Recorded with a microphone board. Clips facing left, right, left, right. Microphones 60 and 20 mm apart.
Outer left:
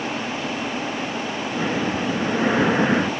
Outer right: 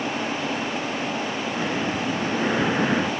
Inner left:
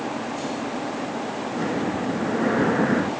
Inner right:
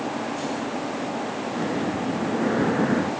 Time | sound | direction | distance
1.5 | breathing | 15° left (ahead or behind) | 0.9 m